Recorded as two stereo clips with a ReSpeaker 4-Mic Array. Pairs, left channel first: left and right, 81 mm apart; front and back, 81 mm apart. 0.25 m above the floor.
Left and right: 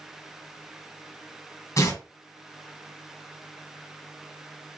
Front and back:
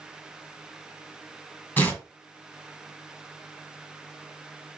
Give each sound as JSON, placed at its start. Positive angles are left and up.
{"t": 1.8, "sound": "tearing paper", "azimuth_deg": 60, "distance_m": 1.6}